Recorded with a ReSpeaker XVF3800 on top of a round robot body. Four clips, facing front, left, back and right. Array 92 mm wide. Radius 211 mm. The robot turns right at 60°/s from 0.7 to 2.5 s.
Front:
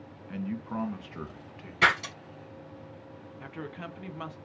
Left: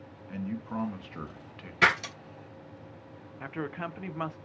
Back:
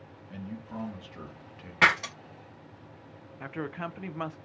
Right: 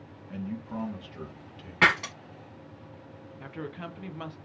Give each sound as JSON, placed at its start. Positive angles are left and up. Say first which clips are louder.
{"t": 0.3, "sound": "a man speaking", "louder": "left 1 dB, front 6 dB", "azimuth_deg": 30, "distance_m": 1.0}
{"t": 1.8, "sound": "breaking glass", "louder": "right 1 dB, back 1 dB", "azimuth_deg": -130, "distance_m": 0.8}
{"t": 3.4, "sound": "a woman speaking", "louder": "left 3 dB, back 5 dB", "azimuth_deg": 130, "distance_m": 0.5}